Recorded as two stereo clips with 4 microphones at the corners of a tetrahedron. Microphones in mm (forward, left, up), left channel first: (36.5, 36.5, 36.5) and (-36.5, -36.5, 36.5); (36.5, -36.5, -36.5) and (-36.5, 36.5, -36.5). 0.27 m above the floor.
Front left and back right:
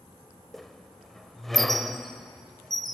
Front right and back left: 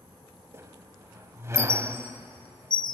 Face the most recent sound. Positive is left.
turn(degrees=130)